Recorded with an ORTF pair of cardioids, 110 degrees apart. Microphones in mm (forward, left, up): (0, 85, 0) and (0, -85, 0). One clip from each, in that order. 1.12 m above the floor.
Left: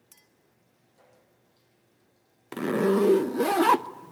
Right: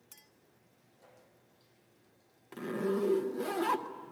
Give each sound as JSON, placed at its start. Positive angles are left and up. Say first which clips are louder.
{"t": 0.1, "sound": "a clink", "louder": "right 1 dB", "azimuth_deg": -5, "distance_m": 1.6}
{"t": 2.5, "sound": "a zipper", "louder": "left 10 dB", "azimuth_deg": 50, "distance_m": 0.5}